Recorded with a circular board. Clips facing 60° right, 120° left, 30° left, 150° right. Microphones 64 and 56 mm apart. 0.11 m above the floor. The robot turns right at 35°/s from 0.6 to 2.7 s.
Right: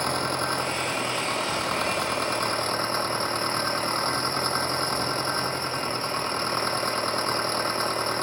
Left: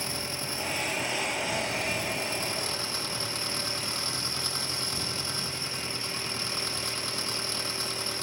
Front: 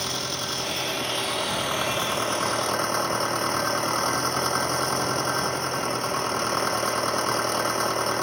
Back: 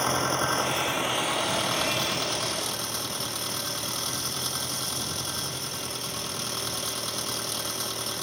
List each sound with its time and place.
0.0 s an engine running: 90° right; by 8.2 s 15° right